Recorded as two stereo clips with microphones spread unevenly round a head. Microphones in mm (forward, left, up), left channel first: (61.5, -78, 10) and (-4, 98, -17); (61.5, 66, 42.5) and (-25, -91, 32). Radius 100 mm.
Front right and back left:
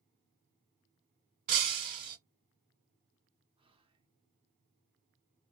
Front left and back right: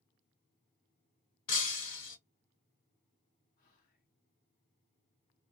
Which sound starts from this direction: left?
Breaking glass, at 1.5 s.